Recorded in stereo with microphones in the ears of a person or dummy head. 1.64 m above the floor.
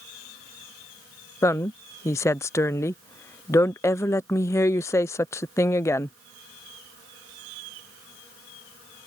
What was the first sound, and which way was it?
A woman speaking, 15° left (ahead or behind).